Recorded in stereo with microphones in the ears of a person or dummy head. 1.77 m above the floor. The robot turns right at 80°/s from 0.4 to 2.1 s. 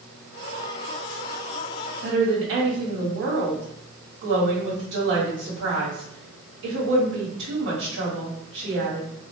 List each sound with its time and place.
2.0 s a woman speaking: 65° right (ahead or behind), 1.4 m; by 9.1 s 70° right (ahead or behind), 1.4 m